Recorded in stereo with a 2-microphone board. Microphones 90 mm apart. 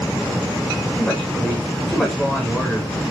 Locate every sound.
1.0 s a woman speaking: 5° right (ahead or behind), 8.5 m